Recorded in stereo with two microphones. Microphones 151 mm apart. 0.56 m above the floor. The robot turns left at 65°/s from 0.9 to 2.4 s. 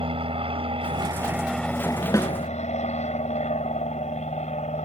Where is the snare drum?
25° left (ahead or behind); by 2.3 s 10° left (ahead or behind).